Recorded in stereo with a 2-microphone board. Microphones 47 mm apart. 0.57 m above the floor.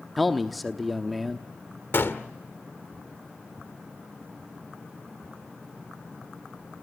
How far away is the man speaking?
About 0.9 m.